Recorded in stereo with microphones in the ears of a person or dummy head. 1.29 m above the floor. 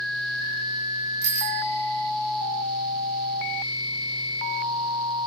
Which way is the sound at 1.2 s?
60° right (ahead or behind).